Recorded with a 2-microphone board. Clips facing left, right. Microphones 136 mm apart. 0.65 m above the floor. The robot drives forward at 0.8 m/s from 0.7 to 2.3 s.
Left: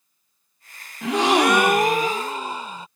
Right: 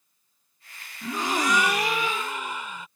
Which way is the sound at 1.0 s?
70° left (ahead or behind).